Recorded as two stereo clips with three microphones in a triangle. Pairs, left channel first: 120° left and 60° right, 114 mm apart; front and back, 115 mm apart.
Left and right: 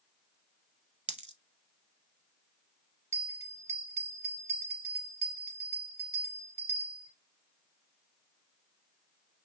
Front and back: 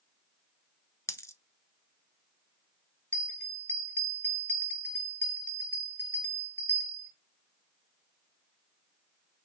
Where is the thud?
I don't hear a thud.